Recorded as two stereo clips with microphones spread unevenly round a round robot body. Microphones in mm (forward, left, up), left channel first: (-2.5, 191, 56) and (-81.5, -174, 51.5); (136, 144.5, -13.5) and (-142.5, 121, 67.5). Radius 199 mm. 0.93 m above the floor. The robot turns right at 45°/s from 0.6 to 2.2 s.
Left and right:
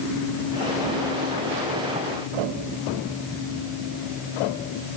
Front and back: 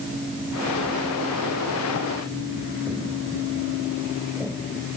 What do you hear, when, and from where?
Only background noise.